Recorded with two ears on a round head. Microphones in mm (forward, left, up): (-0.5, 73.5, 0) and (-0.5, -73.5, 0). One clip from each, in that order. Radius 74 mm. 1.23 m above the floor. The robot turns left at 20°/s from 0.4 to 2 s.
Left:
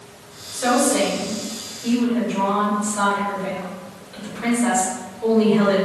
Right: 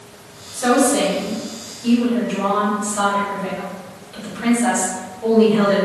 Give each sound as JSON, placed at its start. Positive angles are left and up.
{"t": 0.5, "sound": "a woman speaking", "side_deg": 35, "distance_m": 1.4}